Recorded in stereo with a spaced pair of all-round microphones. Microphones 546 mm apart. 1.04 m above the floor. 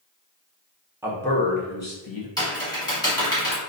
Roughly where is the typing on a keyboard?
Centre.